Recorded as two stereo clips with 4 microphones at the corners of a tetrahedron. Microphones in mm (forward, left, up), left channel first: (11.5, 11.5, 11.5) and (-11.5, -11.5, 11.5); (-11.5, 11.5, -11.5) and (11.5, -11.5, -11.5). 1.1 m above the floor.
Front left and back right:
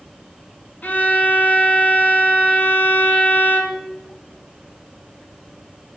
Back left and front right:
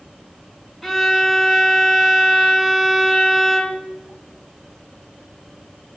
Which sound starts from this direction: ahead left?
A violin, at 0.8 s.